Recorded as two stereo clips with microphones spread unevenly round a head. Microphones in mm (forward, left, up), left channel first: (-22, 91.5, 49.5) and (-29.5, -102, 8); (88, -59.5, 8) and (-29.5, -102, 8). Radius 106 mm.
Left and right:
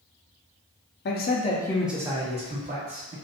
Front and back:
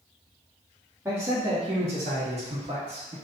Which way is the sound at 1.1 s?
120° left.